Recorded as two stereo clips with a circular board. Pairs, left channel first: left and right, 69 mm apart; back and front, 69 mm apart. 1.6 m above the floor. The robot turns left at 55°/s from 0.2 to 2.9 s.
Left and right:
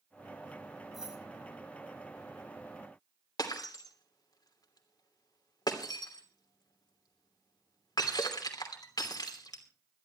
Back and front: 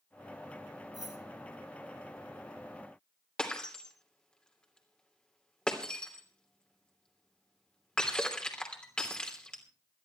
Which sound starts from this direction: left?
Breaking glass, at 3.4 s.